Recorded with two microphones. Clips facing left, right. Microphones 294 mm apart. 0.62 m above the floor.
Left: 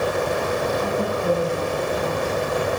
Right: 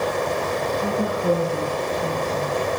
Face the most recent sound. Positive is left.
turn(degrees=-25)  # may be behind; listen again after turning